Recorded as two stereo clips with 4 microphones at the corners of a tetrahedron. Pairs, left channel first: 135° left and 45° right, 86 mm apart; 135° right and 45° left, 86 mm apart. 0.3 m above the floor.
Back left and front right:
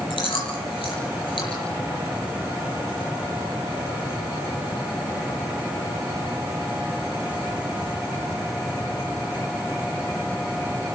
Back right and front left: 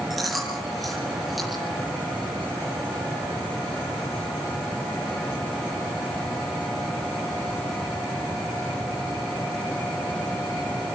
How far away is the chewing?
About 8.5 m.